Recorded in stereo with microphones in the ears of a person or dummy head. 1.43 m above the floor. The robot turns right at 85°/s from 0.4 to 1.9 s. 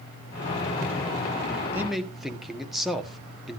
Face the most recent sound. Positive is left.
turn(degrees=-5)  # may be behind; listen again after turning